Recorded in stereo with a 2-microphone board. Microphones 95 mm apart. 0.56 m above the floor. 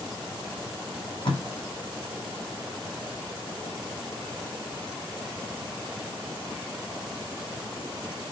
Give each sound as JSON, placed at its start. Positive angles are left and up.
{"t": 0.9, "sound": "tape being pulled", "side_deg": 55, "distance_m": 2.5}